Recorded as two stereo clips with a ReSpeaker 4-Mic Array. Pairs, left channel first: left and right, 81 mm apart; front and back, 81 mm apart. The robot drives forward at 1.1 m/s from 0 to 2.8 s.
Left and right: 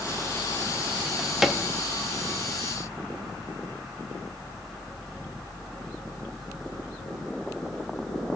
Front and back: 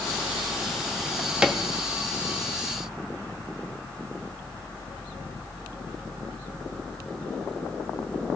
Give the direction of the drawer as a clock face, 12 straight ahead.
12 o'clock.